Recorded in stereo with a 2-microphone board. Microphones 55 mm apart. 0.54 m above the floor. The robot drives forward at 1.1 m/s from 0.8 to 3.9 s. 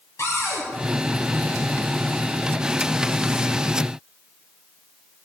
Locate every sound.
0.2 s a cupboard door: 65° left (ahead or behind), 2 m